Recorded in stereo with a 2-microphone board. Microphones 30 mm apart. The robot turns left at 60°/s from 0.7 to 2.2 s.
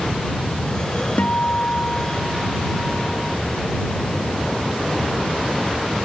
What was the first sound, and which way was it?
A guitar, 90° left.